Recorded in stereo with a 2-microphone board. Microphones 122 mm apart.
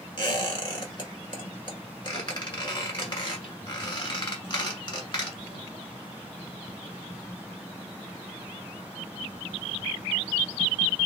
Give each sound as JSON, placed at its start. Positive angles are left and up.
{"t": 0.2, "sound": "a squeak", "side_deg": 40, "distance_m": 1.3}